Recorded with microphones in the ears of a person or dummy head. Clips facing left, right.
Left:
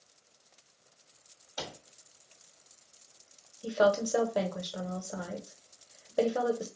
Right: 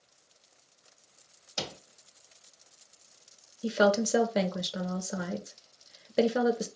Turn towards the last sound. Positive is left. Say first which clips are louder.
# right 1 dB
turn(degrees=-30)  # may be behind; listen again after turning